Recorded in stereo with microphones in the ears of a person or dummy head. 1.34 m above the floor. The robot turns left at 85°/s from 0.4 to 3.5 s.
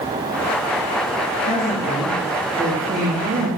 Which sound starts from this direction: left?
A woman speaking, at 1.5 s.